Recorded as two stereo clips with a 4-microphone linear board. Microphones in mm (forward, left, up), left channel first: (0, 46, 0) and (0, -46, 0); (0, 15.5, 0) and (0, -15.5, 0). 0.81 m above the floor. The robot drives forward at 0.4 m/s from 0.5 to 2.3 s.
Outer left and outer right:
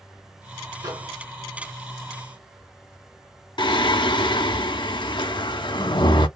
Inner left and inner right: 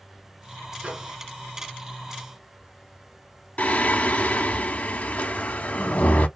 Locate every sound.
0.8 s a microwave: 45° right (ahead or behind), 1.2 m; by 1.1 s 50° right (ahead or behind), 1.1 m
3.6 s singing: 60° left (ahead or behind), 0.6 m